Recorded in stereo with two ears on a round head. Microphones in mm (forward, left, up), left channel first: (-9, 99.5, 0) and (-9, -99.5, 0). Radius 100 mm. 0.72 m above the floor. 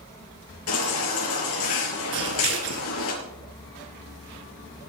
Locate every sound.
0.7 s a baby crying: 70° left (ahead or behind), 6 m
2.1 s scissors: 55° right (ahead or behind), 4 m